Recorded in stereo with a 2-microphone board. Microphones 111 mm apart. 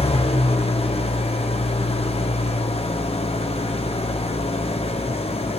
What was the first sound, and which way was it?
An engine running, 70° left (ahead or behind).